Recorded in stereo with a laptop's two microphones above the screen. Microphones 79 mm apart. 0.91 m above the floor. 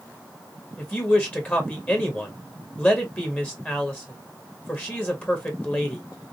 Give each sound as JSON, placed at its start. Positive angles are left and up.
{"t": 0.8, "sound": "a woman speaking", "side_deg": 20, "distance_m": 1.3}